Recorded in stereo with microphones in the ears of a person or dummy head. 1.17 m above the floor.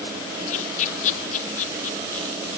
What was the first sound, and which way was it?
Laughter, 45° left (ahead or behind).